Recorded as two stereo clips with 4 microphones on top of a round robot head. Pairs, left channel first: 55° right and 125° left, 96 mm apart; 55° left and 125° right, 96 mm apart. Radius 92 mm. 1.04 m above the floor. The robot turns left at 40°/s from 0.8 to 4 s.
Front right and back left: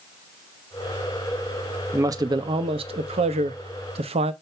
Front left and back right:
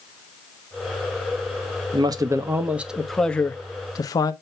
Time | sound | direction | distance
1.9 | a man speaking | 170° right | 0.9 m